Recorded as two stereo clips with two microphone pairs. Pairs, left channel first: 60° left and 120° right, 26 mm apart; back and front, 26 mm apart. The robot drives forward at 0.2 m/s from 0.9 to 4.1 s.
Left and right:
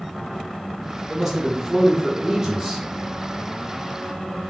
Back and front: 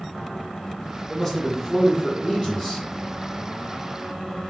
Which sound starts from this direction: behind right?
A man speaking, at 1.1 s.